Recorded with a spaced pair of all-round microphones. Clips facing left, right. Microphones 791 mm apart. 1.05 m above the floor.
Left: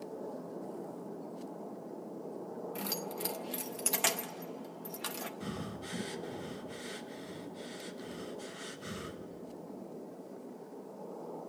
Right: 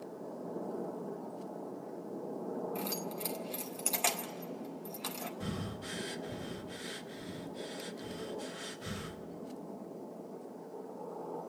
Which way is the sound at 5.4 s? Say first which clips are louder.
Right 2 dB; 30° right (ahead or behind).